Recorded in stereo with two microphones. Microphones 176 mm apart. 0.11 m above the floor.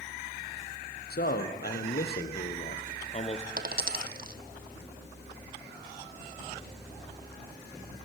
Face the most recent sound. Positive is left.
turn(degrees=-60)  # may be behind; listen again after turning